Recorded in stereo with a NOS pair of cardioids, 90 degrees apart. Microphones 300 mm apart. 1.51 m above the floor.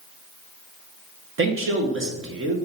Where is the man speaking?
45° right, 1.9 m.